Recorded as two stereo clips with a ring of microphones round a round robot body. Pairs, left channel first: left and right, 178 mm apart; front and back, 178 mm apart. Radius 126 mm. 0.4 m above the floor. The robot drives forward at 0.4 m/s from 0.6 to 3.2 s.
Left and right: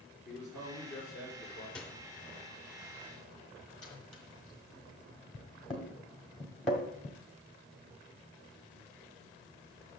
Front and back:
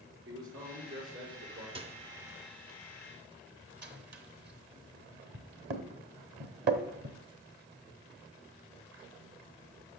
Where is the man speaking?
175° right, 5 m.